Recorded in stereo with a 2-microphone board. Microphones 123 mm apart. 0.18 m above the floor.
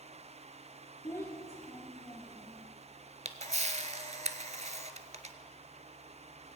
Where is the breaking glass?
I don't hear breaking glass.